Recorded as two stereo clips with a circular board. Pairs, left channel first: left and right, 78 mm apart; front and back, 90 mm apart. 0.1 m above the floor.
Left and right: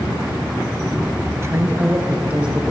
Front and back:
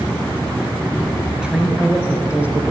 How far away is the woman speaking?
About 1.5 m.